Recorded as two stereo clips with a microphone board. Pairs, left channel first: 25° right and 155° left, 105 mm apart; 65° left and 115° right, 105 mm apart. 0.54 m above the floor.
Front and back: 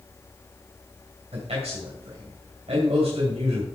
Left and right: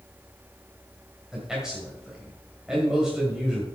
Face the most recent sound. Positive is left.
turn(degrees=165)